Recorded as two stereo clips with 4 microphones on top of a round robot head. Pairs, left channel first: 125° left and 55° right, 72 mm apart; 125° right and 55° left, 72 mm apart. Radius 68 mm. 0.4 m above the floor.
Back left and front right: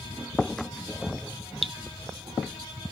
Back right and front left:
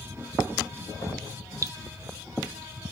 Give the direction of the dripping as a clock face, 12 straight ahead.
11 o'clock.